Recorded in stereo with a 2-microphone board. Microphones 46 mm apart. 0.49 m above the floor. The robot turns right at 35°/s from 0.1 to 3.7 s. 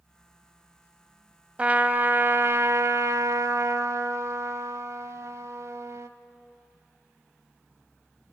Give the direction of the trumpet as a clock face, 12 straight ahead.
5 o'clock.